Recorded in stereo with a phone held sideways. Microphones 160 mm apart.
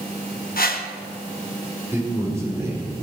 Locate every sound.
0.6 s a whoosh: 65° left (ahead or behind), 1.1 m
1.9 s a man speaking: 15° right (ahead or behind), 3 m